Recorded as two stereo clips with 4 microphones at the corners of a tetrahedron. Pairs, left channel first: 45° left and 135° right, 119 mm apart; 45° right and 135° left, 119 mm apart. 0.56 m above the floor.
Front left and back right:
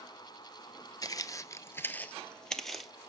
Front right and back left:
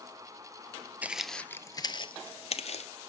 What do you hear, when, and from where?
1.0 s footsteps: 65° left, 0.6 m; by 2.9 s 45° right, 1.0 m